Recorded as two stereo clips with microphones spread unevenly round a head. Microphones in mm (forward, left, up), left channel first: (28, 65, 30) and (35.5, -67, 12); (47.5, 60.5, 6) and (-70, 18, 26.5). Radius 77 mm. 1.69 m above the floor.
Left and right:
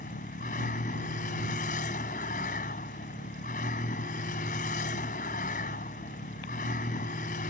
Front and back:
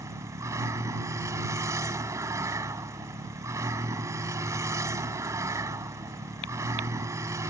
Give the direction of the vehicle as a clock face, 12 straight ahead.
7 o'clock.